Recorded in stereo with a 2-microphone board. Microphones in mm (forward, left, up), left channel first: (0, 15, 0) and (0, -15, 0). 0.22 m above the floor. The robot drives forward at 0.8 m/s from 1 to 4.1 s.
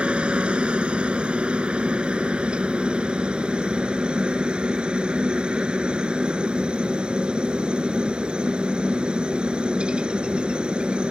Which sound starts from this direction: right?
A helicopter, at 0.0 s.